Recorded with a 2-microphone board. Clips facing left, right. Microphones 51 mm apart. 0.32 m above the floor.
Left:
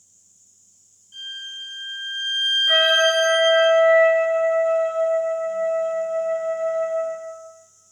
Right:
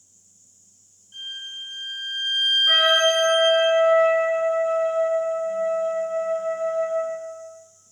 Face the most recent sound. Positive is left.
turn(degrees=-50)  # may be behind; listen again after turning